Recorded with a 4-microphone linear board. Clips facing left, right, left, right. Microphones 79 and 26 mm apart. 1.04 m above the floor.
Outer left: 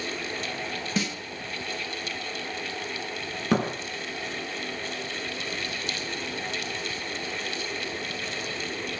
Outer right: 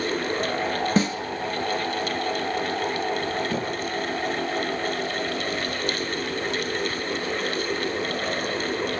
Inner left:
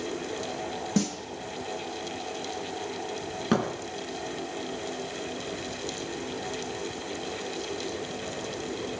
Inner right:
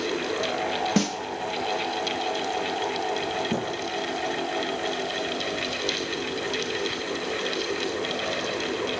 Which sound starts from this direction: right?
A snare drum, at 1.0 s.